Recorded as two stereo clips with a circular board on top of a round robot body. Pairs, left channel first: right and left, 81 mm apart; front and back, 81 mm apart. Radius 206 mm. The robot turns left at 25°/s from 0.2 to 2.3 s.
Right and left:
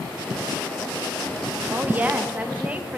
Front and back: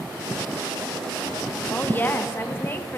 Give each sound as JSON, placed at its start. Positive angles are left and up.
{"t": 1.7, "sound": "a woman speaking", "azimuth_deg": 45, "distance_m": 0.8}